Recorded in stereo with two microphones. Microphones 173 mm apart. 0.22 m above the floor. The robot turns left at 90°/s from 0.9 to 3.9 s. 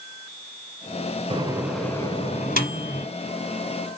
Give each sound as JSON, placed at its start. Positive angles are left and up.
{"t": 1.3, "sound": "a microwave", "side_deg": -35, "distance_m": 1.4}